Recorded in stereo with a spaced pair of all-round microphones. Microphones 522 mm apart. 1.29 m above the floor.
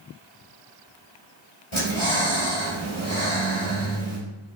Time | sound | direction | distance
1.7 | breathing | 65° left (ahead or behind) | 4 m